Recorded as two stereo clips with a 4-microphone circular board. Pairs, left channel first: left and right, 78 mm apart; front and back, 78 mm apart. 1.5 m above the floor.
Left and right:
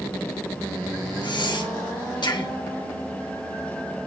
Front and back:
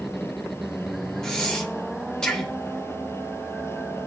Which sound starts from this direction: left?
Breathing, at 1.2 s.